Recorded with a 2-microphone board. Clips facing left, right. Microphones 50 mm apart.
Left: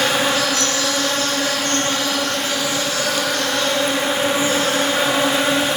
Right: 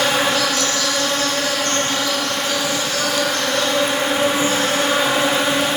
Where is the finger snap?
I don't hear a finger snap.